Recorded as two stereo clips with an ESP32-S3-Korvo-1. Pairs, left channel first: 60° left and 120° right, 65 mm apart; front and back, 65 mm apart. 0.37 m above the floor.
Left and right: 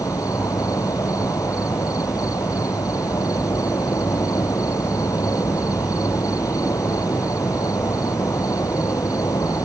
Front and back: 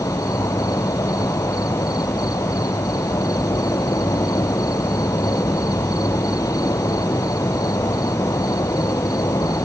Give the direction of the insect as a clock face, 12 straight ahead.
11 o'clock.